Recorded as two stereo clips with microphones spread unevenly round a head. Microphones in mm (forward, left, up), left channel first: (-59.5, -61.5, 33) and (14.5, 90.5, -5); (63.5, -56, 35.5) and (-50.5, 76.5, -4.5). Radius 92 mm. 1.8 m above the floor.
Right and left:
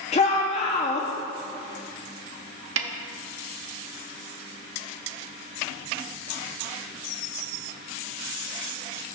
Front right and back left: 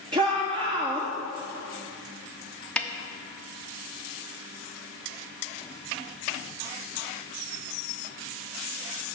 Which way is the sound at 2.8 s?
35° left.